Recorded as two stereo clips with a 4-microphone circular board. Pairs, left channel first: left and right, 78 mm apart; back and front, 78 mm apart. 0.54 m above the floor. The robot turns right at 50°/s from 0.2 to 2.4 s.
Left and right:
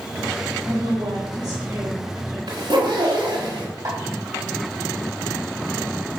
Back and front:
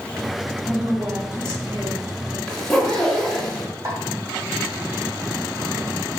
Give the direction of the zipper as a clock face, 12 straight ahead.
3 o'clock.